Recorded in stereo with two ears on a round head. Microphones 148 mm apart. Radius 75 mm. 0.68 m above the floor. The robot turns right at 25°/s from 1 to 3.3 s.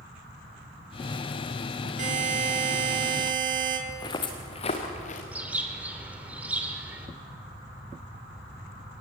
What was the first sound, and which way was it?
A buzzer, 125° right.